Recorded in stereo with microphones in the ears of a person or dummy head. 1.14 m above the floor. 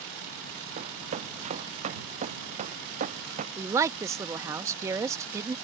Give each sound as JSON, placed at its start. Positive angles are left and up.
{"t": 0.8, "sound": "running footsteps", "side_deg": -40}
{"t": 3.6, "sound": "a woman speaking", "side_deg": -20}